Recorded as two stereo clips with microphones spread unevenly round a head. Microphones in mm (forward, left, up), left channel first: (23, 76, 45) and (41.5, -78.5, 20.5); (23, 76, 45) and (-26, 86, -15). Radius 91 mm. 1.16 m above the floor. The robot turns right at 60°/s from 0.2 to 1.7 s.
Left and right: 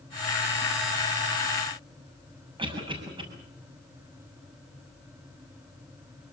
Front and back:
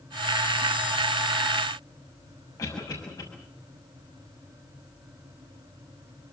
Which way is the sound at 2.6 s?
25° right.